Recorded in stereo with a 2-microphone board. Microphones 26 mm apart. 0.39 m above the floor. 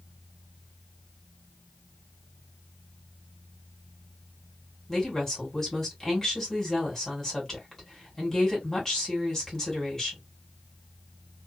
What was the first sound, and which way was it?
A woman speaking, 15° left (ahead or behind).